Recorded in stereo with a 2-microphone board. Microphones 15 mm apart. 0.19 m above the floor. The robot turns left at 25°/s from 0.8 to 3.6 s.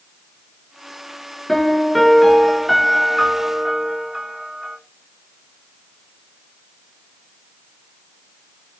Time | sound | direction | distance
1.5 | a piano | 30° left | 0.8 m